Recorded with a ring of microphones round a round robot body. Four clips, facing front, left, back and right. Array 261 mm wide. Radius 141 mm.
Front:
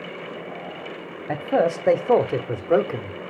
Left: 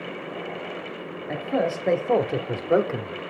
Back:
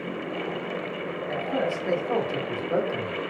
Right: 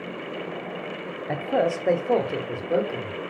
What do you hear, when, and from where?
1.3 s a man speaking: 25° right, 1.3 m; by 3.2 s 55° left, 1.4 m